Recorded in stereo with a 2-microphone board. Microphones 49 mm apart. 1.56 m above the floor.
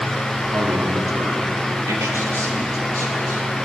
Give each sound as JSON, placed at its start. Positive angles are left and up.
{"t": 0.5, "sound": "a man speaking", "side_deg": -70, "distance_m": 4.5}